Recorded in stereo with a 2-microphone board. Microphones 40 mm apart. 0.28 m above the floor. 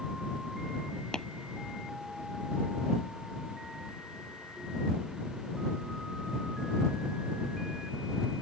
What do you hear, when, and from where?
1.1 s tapping: 15° left (ahead or behind)